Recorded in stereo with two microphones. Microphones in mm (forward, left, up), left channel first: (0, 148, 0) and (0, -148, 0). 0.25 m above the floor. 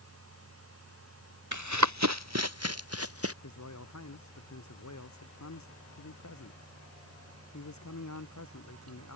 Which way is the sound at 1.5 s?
75° right (ahead or behind).